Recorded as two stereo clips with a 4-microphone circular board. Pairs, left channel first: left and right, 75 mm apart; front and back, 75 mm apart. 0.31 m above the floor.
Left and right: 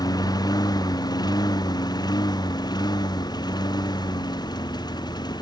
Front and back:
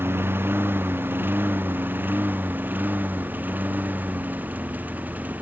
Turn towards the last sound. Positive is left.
turn(degrees=110)